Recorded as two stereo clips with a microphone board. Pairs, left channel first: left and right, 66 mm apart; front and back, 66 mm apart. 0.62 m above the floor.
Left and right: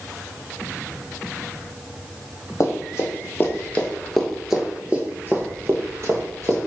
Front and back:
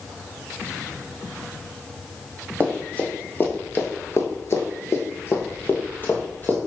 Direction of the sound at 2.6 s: 60° left.